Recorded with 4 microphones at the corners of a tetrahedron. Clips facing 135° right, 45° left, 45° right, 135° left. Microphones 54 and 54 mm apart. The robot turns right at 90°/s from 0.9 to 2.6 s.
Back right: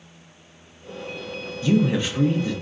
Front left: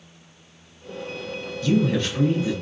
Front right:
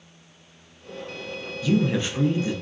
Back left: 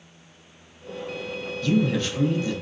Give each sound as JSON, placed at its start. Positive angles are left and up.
{"t": 1.6, "sound": "a man speaking", "azimuth_deg": -105, "distance_m": 0.7}